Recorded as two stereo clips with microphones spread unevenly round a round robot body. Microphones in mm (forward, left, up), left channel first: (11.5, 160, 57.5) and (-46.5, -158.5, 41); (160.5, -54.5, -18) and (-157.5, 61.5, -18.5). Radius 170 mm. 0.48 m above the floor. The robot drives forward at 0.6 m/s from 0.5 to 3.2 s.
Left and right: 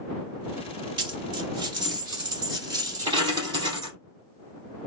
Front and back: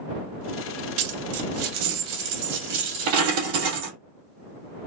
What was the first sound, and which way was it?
A dropped coin, 175° right.